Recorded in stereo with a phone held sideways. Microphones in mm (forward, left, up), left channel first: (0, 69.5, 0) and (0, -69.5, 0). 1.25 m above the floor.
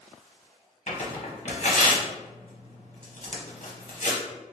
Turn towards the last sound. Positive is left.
turn(degrees=60)  # may be behind; listen again after turning